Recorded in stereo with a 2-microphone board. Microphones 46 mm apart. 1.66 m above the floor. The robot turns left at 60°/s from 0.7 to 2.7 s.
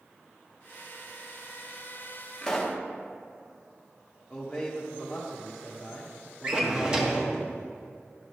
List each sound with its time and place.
2.4 s a pop: 15° left (ahead or behind), 1.0 m; by 2.8 s centre (ahead or behind), 1.0 m
4.3 s a man speaking: centre (ahead or behind), 1.2 m
6.4 s a drawer: 20° right (ahead or behind), 1.1 m